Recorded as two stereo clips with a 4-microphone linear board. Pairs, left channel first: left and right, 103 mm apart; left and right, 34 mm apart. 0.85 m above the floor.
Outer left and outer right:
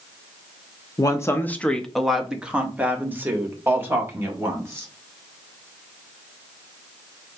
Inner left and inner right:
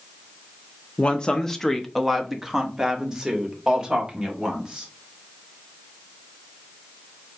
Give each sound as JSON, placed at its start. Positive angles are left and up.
{"t": 1.0, "sound": "a woman speaking", "side_deg": 35, "distance_m": 0.5}